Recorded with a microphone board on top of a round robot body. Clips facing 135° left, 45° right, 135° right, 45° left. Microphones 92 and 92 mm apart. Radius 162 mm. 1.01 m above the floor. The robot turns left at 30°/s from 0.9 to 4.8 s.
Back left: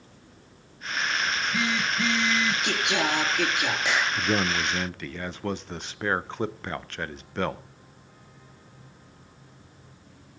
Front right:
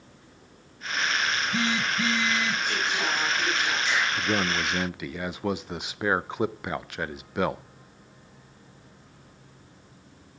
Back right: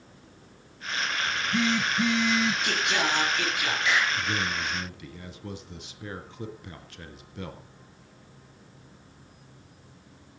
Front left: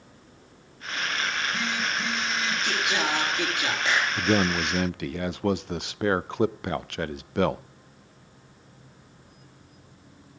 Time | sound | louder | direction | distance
1.3 | a phone buzzing | even, back right 3 dB | 100° right | 6.5 m
2.6 | singing | back left 2 dB, even | 140° left | 3.5 m
4.2 | a man speaking | back left 1 dB, front left 6 dB | 55° left | 0.6 m